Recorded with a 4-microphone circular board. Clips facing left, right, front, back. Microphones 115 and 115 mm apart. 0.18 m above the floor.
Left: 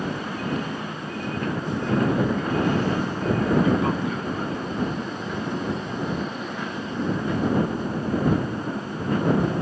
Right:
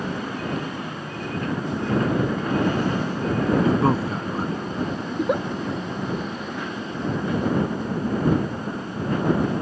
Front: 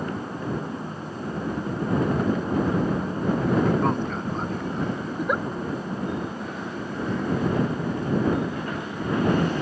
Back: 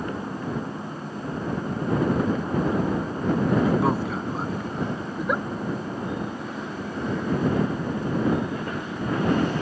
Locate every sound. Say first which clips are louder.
3.6 s a man speaking: right 2 dB, back 1 dB; 100° right
5.1 s a giggle: right 7 dB, front 1 dB; 90° right